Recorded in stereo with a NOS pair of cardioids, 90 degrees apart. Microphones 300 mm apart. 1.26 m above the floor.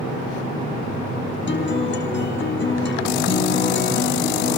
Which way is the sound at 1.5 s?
40° left.